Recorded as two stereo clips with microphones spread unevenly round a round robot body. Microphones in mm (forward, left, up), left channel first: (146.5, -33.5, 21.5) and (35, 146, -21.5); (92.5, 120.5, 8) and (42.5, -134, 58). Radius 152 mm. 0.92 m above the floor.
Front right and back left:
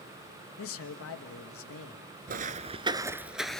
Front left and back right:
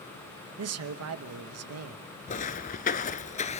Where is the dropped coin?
No dropped coin in this recording.